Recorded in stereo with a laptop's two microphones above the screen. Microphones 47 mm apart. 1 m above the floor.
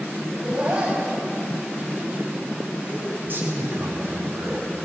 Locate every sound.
0.3 s laughter: 25° right (ahead or behind), 6.5 m
3.2 s a man speaking: 40° right (ahead or behind), 6 m